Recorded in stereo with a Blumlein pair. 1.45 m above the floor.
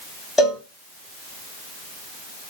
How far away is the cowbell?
About 1.2 m.